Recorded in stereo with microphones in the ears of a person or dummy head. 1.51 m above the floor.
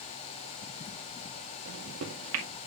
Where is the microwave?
70° right (ahead or behind), 2 m.